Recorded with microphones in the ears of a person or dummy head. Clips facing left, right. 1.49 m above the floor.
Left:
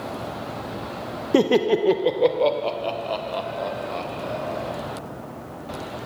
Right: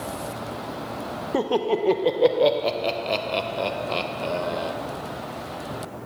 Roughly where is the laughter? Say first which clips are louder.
Left 5 dB; left.